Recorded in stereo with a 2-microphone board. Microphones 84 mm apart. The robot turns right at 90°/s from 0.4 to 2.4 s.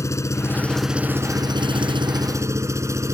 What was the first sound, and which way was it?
An engine running, 140° left.